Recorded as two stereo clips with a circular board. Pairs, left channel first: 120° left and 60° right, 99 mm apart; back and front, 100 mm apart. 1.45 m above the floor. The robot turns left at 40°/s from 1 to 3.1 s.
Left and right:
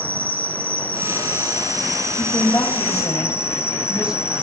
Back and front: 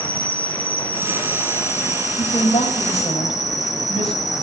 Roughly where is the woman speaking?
Behind right.